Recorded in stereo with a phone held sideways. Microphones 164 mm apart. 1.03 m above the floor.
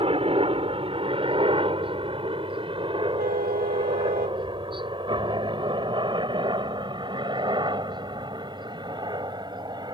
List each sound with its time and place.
0.0 s a helicopter: 35° right (ahead or behind); by 9.9 s 30° right (ahead or behind)
3.2 s a car horn: 80° right